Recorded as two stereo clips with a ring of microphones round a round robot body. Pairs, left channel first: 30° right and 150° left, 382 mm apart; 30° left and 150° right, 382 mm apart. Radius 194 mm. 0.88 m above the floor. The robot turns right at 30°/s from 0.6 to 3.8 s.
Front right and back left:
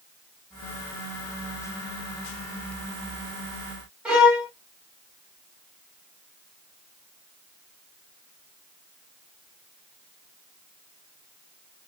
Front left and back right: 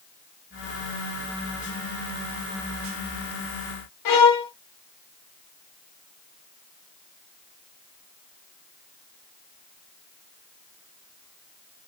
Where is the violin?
65° left, 0.8 m.